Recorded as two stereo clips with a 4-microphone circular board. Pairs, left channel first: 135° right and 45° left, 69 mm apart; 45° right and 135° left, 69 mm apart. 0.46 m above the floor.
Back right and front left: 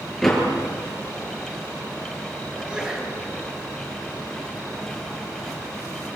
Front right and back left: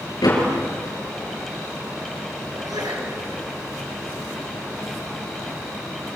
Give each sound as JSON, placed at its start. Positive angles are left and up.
{"t": 0.2, "sound": "a door slam", "azimuth_deg": -50, "distance_m": 7.0}
{"t": 2.5, "sound": "a sneeze", "azimuth_deg": 120, "distance_m": 7.5}